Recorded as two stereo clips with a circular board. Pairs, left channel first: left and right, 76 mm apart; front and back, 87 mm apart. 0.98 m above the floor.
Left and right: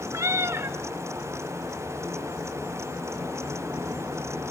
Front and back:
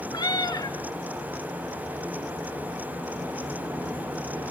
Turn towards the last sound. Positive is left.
turn(degrees=-40)